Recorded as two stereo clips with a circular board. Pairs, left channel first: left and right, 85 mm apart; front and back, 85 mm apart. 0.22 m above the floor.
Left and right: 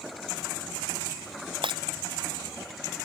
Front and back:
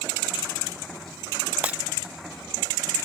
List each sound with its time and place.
1.6 s breaking glass: 105° right